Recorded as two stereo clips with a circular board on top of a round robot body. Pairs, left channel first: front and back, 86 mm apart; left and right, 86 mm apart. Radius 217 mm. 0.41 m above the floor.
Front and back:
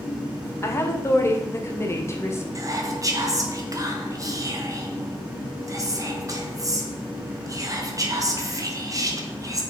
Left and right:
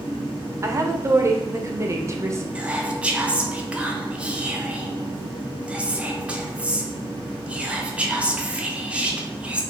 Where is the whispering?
160° right, 1.1 m.